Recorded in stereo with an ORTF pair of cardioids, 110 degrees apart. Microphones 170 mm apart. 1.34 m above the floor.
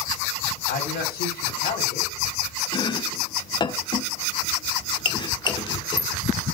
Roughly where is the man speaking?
Ahead left.